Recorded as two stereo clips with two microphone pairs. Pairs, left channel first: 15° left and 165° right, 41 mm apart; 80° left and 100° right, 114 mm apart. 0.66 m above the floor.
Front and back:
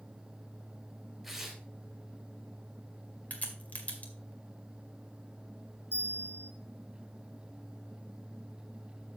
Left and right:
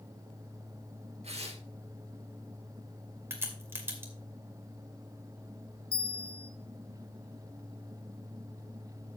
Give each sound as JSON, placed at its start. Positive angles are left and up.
{"t": 1.2, "sound": "tearing paper", "azimuth_deg": -80, "distance_m": 2.5}
{"t": 3.3, "sound": "a crack", "azimuth_deg": -35, "distance_m": 2.0}
{"t": 5.9, "sound": "a bell", "azimuth_deg": 50, "distance_m": 2.5}